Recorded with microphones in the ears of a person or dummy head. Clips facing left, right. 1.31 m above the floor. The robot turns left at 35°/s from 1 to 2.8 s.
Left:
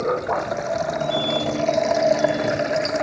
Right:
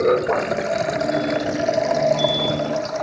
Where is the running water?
145° right; by 3.0 s 155° left.